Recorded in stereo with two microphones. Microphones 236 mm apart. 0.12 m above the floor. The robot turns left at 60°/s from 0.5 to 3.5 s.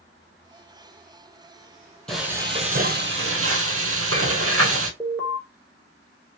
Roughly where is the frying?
Ahead.